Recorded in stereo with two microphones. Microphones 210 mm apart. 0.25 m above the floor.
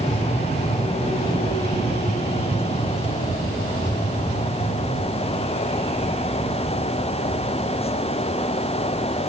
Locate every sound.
Only background noise.